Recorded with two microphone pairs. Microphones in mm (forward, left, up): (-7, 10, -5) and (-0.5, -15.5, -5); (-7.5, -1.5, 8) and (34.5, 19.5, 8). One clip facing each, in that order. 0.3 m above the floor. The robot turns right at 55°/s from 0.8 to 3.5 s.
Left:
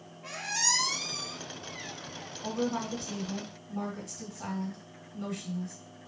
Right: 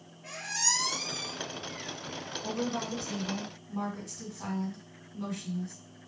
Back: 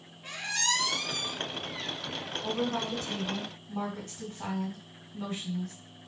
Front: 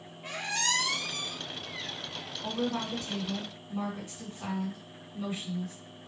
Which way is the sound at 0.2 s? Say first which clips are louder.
Left 2 dB, even; 65° left.